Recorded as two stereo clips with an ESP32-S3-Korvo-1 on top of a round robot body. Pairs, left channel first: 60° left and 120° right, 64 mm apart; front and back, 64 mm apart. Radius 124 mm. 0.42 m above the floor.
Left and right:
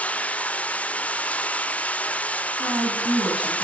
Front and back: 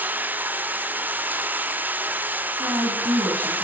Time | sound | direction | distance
0.0 | running water | 125° left | 1.3 m
2.6 | a woman speaking | 165° right | 5.5 m